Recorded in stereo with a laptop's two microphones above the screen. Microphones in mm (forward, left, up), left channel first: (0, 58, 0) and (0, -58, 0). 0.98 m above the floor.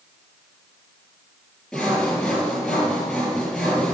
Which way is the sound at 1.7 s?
5° left (ahead or behind).